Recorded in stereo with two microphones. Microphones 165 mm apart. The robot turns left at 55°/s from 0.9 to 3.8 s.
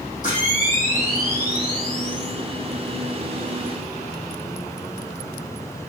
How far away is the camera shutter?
About 5.5 m.